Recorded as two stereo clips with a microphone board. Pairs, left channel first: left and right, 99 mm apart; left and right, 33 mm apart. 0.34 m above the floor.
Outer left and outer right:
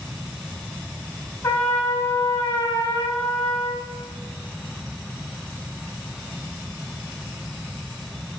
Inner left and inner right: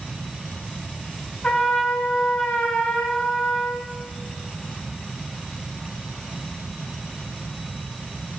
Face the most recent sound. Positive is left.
turn(degrees=25)  # may be behind; listen again after turning